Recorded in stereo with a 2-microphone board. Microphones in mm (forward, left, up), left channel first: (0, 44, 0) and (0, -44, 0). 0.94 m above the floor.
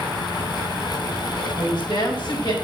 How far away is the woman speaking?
About 4.5 m.